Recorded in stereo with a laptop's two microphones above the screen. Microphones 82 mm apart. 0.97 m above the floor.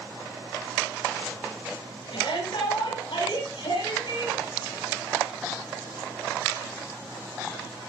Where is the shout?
85° left, 4.5 m; by 4.4 s 70° left (ahead or behind), 5.5 m.